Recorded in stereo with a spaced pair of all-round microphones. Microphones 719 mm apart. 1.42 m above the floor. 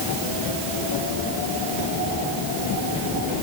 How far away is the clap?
No clap in this recording.